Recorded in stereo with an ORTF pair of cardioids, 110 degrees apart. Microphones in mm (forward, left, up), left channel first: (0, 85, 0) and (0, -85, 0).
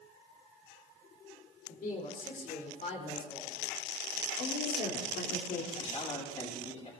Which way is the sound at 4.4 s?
60° left.